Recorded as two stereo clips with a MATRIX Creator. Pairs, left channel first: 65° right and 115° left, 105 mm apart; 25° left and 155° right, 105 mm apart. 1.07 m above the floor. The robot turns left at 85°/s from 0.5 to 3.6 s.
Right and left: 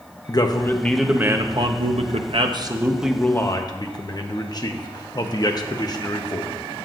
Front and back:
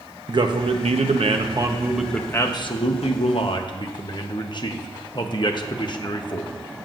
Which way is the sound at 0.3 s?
115° right.